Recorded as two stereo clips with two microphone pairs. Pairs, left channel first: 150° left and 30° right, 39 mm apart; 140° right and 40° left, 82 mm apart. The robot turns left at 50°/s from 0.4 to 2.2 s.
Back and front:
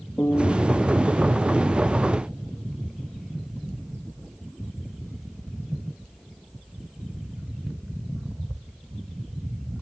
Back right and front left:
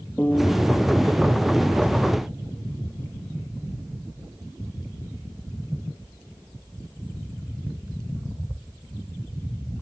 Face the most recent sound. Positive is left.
turn(degrees=60)